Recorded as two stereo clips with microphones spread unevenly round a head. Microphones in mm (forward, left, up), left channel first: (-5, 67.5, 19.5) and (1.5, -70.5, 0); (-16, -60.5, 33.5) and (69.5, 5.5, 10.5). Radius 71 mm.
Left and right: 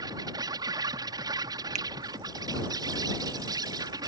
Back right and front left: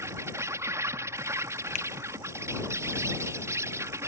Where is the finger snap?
130° right.